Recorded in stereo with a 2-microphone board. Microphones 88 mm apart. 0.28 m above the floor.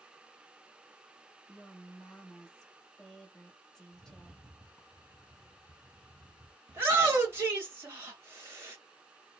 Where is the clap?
No clap in this recording.